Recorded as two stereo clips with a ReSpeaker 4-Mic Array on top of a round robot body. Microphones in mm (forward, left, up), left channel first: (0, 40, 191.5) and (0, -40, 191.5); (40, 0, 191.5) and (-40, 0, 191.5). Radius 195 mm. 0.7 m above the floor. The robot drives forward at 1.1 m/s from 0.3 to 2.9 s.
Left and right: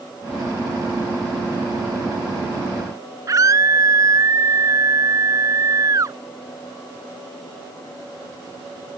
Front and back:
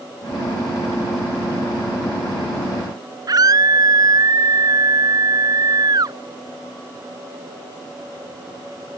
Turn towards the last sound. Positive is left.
turn(degrees=-140)